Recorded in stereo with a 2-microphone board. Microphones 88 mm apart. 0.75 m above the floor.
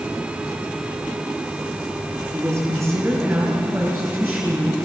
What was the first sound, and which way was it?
A woman speaking, 35° right (ahead or behind).